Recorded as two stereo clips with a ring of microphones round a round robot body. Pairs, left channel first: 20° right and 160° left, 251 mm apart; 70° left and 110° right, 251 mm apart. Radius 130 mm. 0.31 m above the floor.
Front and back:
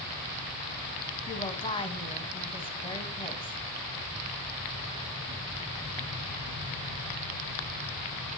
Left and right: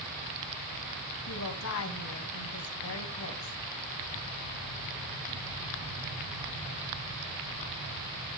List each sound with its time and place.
1.3 s a woman speaking: 45° left, 2.5 m